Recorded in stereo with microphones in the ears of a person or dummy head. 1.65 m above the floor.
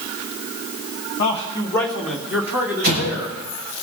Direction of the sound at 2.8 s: 40° right (ahead or behind).